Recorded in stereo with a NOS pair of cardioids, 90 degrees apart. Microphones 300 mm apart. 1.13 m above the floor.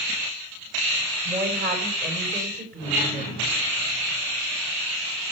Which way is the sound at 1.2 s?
35° right.